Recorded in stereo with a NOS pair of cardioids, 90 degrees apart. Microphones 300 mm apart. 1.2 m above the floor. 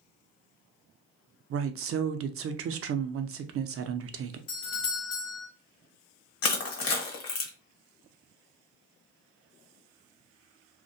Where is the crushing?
55° left, 1.1 m.